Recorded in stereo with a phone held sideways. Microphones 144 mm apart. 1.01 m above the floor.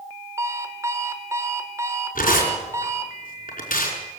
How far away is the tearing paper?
About 5.5 m.